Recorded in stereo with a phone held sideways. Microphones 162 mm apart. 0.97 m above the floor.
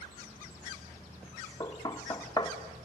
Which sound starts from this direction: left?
Knocking, at 1.6 s.